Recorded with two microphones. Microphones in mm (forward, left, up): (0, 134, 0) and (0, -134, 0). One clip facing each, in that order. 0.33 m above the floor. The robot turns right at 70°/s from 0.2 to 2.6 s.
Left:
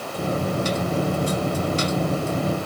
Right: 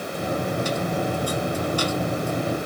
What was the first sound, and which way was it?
Only background noise.